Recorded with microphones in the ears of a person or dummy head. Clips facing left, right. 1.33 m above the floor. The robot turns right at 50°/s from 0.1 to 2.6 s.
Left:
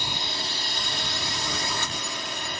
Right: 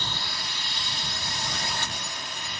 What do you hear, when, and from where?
0.0 s a drone: 15° left; by 2.6 s 140° left